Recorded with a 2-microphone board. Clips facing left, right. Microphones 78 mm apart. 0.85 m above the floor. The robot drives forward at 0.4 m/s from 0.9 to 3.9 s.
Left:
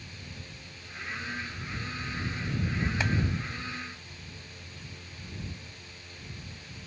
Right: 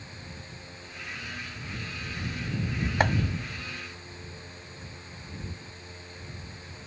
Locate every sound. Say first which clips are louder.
3.0 s chopping: right 8 dB; 55° right (ahead or behind)